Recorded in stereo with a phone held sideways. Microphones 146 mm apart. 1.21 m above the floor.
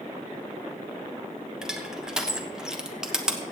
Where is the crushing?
5° right (ahead or behind), 1.1 m.